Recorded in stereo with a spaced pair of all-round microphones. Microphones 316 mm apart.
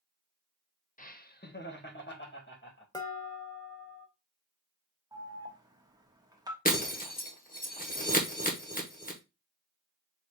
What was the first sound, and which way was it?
Laughter, 25° left (ahead or behind).